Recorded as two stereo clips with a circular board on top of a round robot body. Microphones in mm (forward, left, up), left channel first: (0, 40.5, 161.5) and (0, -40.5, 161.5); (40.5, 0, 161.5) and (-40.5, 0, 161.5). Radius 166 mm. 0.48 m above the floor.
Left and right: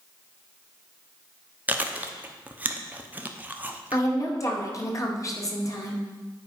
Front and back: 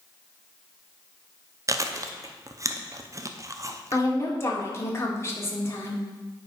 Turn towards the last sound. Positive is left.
turn(degrees=50)